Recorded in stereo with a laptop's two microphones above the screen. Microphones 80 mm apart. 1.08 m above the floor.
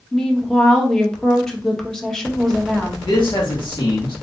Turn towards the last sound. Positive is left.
turn(degrees=80)